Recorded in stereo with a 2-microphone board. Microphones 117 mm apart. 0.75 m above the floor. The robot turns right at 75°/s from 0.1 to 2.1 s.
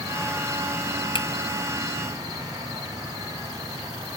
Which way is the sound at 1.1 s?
45° left (ahead or behind).